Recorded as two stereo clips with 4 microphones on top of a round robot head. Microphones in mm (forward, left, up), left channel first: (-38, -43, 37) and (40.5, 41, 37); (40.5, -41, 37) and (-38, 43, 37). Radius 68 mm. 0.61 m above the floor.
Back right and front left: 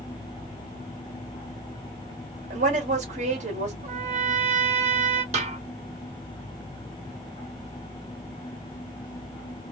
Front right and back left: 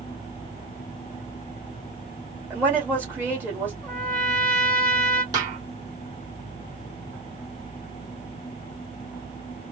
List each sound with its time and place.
2.5 s a woman speaking: 60° left, 2 m
3.8 s a trumpet: 35° left, 1.4 m
5.3 s a snare drum: 75° left, 2 m